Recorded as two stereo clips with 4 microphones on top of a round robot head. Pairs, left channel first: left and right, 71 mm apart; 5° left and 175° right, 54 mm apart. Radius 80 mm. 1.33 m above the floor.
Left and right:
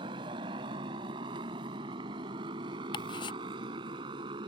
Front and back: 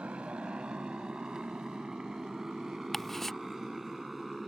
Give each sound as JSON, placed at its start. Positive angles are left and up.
{"t": 0.0, "sound": "a motorcycle", "azimuth_deg": -105}
{"t": 2.9, "sound": "ticking", "azimuth_deg": 85}